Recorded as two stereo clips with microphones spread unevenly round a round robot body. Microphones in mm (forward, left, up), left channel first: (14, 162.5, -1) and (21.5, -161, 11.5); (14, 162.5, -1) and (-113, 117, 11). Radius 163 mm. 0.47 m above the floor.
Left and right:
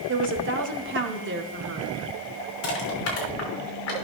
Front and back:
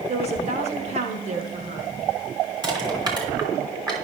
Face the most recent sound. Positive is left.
turn(degrees=140)